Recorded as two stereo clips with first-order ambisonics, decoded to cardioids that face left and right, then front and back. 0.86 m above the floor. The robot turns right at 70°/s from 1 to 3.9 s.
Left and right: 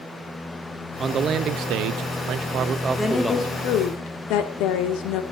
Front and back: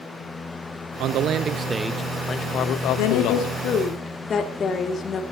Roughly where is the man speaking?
Behind right.